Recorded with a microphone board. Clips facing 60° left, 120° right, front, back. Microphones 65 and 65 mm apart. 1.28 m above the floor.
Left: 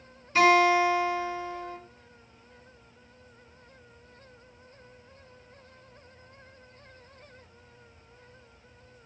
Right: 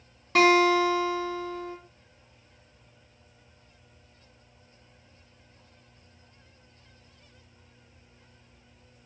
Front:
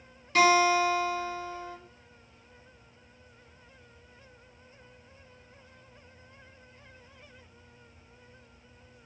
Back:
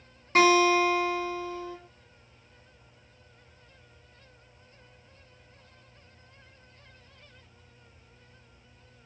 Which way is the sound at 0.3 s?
135° right.